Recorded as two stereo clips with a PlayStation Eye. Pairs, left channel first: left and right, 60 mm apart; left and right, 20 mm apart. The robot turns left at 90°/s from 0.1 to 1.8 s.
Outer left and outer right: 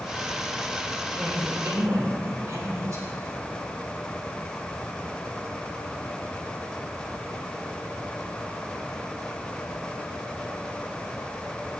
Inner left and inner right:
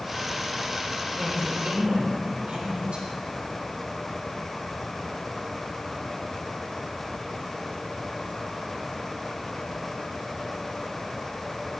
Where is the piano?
No piano in this recording.